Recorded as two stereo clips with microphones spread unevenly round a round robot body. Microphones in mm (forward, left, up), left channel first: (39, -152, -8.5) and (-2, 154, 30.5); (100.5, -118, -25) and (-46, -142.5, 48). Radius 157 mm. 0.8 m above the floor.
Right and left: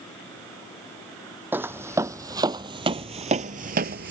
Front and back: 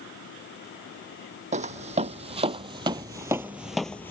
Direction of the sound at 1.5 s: Straight behind.